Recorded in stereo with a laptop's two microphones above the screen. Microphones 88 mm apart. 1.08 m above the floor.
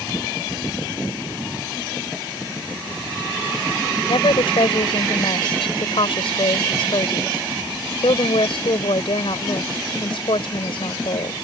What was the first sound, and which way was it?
A woman speaking, 85° left.